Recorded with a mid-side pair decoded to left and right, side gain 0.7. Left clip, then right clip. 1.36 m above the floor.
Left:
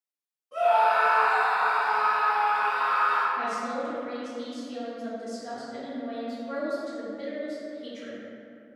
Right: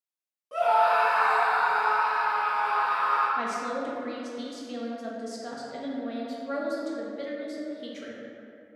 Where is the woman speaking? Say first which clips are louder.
Even; 35° right, 0.5 m.